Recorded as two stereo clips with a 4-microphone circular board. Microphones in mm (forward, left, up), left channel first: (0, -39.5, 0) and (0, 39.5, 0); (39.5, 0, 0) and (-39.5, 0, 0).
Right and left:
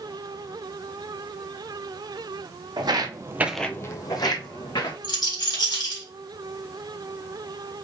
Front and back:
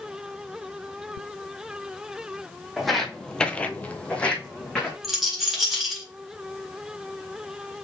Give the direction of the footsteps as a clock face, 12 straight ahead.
9 o'clock.